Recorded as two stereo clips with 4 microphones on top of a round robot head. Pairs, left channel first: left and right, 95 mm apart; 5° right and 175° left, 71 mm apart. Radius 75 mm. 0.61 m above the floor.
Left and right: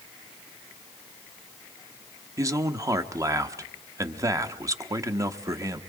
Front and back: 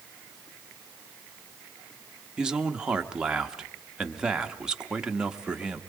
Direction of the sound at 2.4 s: 115° right.